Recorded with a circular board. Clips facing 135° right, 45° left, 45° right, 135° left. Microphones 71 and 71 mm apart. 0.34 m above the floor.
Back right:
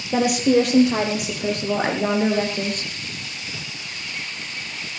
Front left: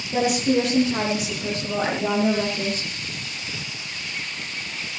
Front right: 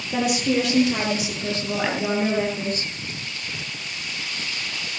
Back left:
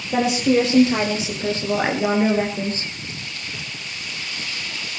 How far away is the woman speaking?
About 7.5 m.